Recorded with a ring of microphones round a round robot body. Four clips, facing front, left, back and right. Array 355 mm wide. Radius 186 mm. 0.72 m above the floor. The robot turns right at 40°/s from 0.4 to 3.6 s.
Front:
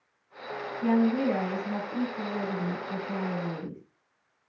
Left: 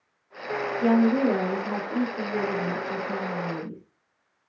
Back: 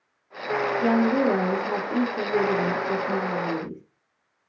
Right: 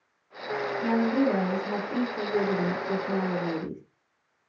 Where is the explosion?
No explosion in this recording.